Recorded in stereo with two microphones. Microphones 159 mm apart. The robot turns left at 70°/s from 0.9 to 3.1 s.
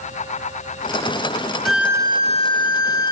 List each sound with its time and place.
1.6 s a violin: straight ahead, 0.8 m; by 3.1 s 100° right, 0.8 m